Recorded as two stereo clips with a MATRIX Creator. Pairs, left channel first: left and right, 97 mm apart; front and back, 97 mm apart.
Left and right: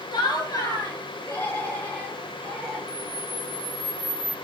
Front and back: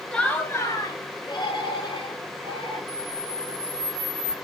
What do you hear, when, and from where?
0.1 s laughter: 80° left, 1.9 m; by 2.8 s 15° left, 5 m
2.9 s a camera shutter: 35° left, 7.5 m